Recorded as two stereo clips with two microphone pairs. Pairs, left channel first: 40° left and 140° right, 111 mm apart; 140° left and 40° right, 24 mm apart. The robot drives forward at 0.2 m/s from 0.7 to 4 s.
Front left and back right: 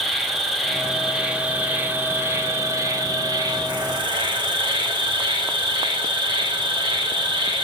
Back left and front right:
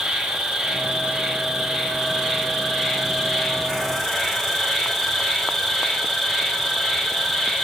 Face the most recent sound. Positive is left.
turn(degrees=-140)